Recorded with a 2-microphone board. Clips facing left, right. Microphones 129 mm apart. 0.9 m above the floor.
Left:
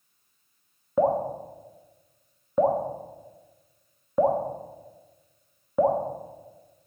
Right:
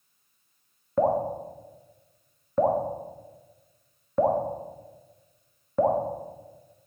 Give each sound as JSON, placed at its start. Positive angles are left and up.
{"t": 1.0, "sound": "dripping", "side_deg": 10, "distance_m": 0.8}